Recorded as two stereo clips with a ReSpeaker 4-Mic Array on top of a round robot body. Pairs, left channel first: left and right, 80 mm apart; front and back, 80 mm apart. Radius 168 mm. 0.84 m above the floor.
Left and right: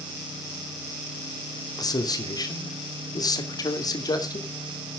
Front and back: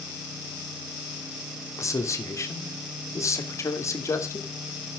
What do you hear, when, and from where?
1.8 s a man speaking: 50° left, 2.5 m